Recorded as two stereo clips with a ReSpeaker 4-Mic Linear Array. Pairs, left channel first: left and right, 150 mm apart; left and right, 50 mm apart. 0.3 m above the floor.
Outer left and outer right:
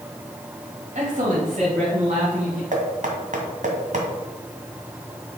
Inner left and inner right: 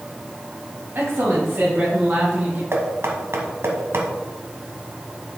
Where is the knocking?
60° right (ahead or behind), 1.6 m.